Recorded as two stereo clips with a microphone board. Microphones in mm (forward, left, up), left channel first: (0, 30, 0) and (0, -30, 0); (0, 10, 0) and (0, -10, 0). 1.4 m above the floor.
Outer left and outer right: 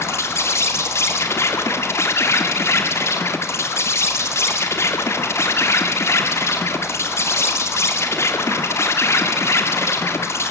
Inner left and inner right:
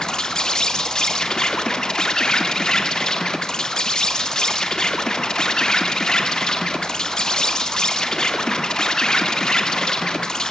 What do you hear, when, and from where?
0.0 s an insect: 45° left (ahead or behind), 2.0 m